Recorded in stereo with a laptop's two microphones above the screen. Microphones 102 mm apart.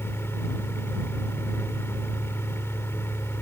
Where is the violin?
No violin in this recording.